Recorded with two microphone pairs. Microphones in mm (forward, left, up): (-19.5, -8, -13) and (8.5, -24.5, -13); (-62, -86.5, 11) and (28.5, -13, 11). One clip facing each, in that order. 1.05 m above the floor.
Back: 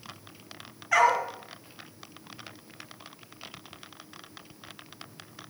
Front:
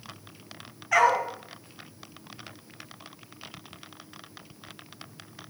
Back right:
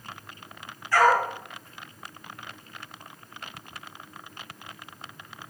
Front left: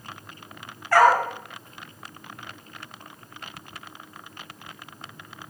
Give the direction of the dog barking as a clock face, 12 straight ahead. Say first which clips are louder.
Front 1 dB, front left 3 dB; 10 o'clock.